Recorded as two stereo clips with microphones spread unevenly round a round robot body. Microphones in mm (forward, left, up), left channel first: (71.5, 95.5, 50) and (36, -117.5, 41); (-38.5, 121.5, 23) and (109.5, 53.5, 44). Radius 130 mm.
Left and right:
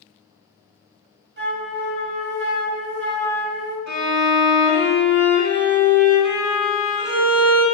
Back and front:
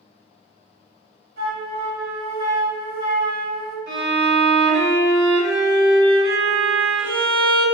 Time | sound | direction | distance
1.4 | a flute | 60° right | 1.0 m
3.9 | a violin | 55° right | 1.5 m